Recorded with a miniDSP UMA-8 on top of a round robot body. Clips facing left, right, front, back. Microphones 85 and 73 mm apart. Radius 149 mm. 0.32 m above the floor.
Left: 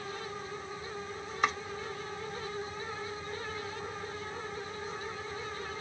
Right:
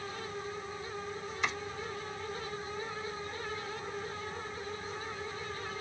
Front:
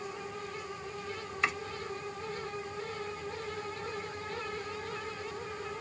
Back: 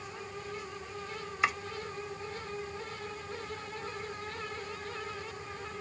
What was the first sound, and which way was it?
Chopping, 100° left.